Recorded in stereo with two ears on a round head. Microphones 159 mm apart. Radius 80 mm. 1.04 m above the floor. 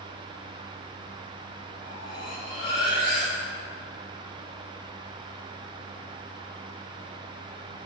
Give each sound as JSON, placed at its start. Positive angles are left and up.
{"t": 1.8, "sound": "cutlery clinking", "side_deg": 75, "distance_m": 3.0}